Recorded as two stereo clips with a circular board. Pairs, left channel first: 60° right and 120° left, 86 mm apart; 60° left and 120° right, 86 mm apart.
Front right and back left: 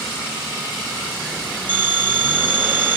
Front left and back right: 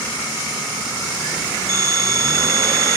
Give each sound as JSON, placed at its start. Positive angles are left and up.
{"t": 1.7, "sound": "a phone ringing", "azimuth_deg": -165, "distance_m": 3.0}